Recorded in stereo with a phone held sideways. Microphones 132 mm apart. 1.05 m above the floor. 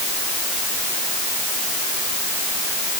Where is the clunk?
I don't hear a clunk.